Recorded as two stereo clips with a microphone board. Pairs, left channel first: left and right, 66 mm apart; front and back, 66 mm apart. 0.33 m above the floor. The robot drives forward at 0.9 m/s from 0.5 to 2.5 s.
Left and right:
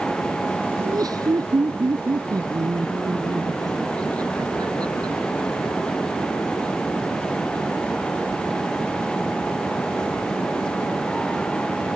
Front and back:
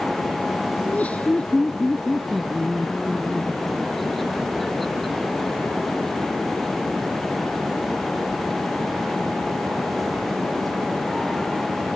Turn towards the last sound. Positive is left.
turn(degrees=-90)